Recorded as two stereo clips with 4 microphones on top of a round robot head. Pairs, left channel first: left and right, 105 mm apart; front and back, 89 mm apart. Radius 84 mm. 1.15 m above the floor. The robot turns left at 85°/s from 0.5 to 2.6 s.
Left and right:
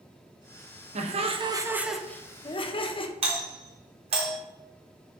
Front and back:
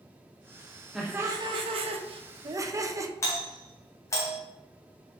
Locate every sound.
0.9 s laughter: 95° right, 1.1 m; by 3.1 s 125° left, 1.1 m
3.2 s a doorbell: 60° right, 1.7 m